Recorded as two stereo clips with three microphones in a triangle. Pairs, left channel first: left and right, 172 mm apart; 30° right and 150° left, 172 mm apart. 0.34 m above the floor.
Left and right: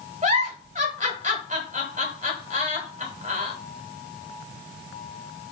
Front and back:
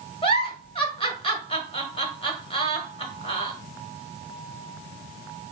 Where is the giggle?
75° right, 1.1 m.